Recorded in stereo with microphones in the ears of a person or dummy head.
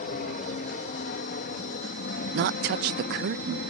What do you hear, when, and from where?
0.0 s an aircraft: 45° left (ahead or behind); by 3.7 s 50° left (ahead or behind)
2.3 s a woman speaking: 50° right (ahead or behind)